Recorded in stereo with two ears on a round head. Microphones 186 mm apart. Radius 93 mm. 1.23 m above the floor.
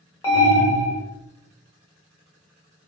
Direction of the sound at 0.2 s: 15° left (ahead or behind).